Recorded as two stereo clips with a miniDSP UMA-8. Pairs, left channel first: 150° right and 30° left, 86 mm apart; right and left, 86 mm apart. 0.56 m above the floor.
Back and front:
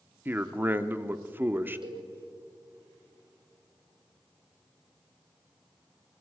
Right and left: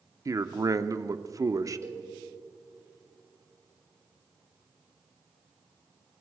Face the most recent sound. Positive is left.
turn(degrees=40)